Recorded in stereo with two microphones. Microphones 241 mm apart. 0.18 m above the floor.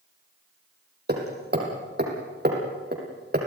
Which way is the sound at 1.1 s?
45° right (ahead or behind).